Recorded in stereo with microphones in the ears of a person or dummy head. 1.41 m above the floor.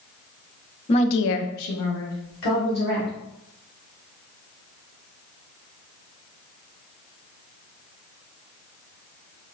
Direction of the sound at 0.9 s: 20° left (ahead or behind).